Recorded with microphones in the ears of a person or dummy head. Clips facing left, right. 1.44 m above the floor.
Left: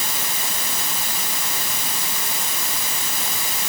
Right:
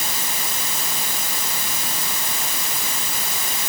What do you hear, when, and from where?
Only background noise.